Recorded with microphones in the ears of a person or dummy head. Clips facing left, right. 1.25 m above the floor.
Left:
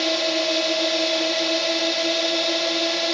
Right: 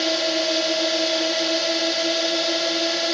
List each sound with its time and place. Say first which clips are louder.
0.0 s a drone: even; 5° right (ahead or behind)